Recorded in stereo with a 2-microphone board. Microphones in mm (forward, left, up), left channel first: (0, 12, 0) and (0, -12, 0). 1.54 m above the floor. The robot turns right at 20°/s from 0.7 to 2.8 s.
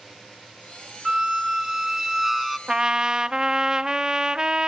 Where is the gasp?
I don't hear a gasp.